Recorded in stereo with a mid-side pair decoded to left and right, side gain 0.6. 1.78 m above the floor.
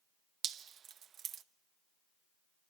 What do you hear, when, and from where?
0.4 s dripping: 45° right, 0.8 m